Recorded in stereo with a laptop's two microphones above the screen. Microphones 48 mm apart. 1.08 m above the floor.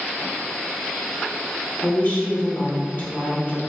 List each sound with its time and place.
1.8 s a woman speaking: 45° left (ahead or behind), 1.2 m